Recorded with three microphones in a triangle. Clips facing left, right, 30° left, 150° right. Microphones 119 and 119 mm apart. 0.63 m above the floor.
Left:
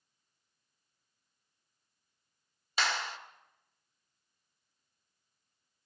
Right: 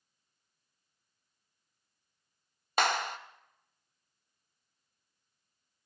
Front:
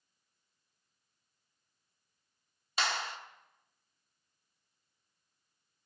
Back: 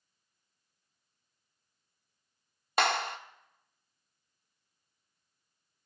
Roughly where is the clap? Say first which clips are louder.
Right 5 dB, back 7 dB; behind right.